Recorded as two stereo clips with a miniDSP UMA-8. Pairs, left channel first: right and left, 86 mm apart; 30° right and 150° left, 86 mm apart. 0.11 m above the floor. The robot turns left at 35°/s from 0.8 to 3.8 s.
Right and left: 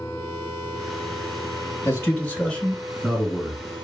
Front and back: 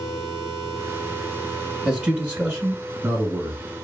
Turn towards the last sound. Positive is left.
turn(degrees=165)